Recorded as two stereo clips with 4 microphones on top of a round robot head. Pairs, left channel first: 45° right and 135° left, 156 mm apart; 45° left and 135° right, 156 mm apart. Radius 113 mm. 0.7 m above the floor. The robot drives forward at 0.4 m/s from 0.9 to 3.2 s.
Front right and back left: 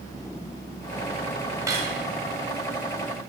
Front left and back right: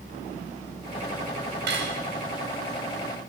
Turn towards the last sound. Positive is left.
turn(degrees=-160)